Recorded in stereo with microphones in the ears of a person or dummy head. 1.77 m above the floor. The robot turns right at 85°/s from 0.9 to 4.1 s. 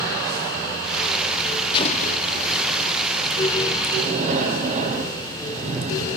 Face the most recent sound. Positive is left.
turn(degrees=-40)  # may be behind; listen again after turning